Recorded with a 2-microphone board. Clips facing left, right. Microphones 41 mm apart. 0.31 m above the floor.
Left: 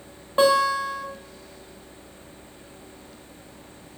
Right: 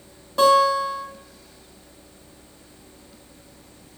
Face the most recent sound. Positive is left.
turn(degrees=30)  # may be behind; listen again after turning